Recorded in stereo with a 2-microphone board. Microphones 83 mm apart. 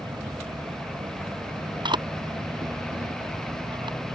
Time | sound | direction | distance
0.0 | an insect | 80° right | ?
1.9 | a camera shutter | 70° right (ahead or behind) | ?